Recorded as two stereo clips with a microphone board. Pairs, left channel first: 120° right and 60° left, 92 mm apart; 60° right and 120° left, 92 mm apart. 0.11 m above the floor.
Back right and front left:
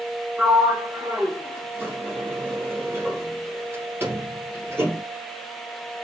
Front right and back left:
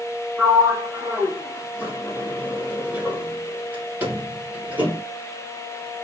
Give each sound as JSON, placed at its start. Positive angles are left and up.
{"t": 0.4, "sound": "a sliding door", "azimuth_deg": 80, "distance_m": 1.5}